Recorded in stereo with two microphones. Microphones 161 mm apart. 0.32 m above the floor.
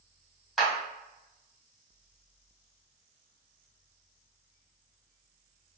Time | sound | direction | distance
0.6 | a clap | centre (ahead or behind) | 1.4 m